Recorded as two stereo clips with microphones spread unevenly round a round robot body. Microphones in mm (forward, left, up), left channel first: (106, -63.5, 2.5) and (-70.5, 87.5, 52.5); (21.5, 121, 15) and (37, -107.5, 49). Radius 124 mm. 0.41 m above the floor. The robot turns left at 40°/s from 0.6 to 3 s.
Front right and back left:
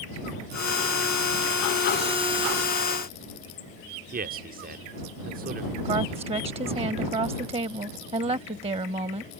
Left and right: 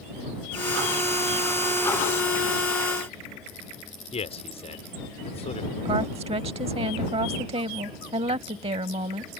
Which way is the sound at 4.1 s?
105° left.